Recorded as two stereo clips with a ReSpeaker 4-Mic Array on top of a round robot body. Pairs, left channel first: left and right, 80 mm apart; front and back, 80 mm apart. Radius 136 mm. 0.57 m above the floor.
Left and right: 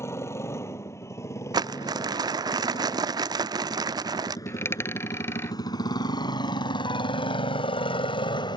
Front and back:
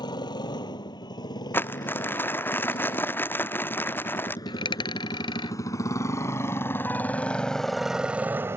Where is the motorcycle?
30° left; by 8.6 s 120° left.